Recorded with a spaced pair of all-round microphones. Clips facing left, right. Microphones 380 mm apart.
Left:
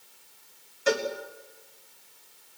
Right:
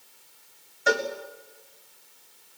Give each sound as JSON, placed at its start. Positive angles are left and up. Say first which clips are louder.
{"t": 0.9, "sound": "a cowbell", "louder": "even", "side_deg": 15, "distance_m": 3.5}